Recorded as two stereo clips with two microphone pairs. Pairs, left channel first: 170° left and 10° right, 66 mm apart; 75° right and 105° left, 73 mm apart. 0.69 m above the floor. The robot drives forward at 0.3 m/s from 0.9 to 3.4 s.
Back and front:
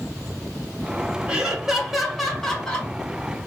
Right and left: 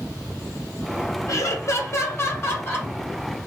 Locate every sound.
1.3 s laughter: 80° right, 0.9 m; by 2.9 s 120° right, 0.9 m